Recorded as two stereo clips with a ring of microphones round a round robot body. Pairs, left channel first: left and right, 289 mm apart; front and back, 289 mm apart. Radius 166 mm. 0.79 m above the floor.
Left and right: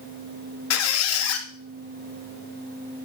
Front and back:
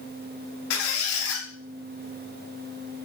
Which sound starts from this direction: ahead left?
A squeak, at 0.7 s.